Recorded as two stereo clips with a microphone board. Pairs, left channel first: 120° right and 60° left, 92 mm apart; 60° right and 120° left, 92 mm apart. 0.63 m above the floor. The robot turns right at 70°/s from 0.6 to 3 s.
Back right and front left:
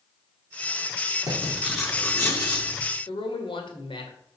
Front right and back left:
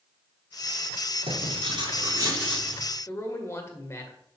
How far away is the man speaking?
About 2 m.